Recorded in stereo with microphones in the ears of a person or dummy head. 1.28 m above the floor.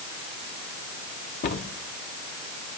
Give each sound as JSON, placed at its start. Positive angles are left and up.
{"t": 1.4, "sound": "a cupboard door", "side_deg": 55, "distance_m": 1.2}